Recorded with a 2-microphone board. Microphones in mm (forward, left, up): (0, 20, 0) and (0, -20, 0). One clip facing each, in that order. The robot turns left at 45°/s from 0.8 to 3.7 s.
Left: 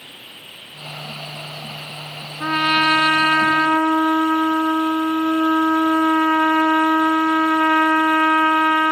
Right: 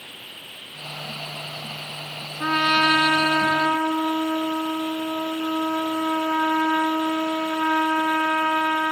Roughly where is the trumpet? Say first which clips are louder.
Left 2 dB; behind.